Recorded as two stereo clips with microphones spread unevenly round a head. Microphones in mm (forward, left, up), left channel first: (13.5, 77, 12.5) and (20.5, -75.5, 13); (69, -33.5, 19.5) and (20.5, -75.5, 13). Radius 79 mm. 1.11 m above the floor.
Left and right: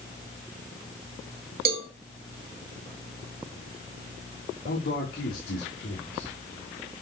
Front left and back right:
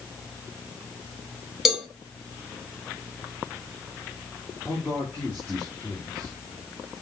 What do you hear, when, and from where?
1.6 s a cowbell: 55° right, 1.6 m
4.7 s a man speaking: 130° left, 3.5 m